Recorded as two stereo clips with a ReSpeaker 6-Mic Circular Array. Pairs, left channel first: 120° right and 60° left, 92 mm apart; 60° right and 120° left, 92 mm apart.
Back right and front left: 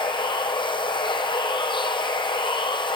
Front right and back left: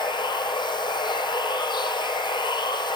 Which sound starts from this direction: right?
Running water, at 0.0 s.